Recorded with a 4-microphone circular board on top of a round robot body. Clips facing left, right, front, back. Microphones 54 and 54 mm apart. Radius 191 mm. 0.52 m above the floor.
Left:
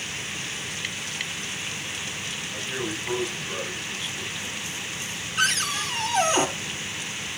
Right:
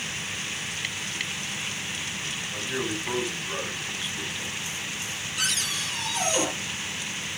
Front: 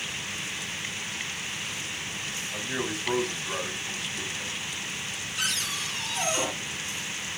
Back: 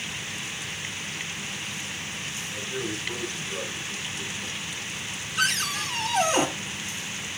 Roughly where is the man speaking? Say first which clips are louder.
Right 1 dB, front 1 dB; ahead.